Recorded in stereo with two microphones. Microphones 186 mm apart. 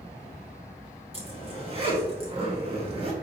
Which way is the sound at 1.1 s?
35° right (ahead or behind).